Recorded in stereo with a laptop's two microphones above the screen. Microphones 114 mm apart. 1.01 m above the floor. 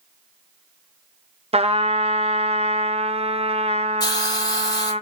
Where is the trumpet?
65° right (ahead or behind), 0.6 m.